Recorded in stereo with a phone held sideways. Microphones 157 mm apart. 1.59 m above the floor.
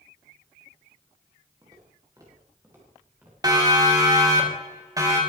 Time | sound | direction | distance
1.6 | footsteps | 25° right (ahead or behind) | 8.5 m
3.4 | a siren | 25° right (ahead or behind) | 3.5 m